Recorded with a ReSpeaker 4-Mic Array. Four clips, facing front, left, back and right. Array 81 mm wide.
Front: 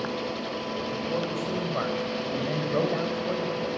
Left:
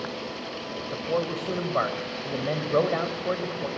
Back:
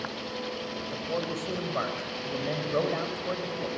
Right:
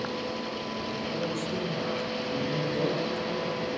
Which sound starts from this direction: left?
A man speaking, at 0.9 s.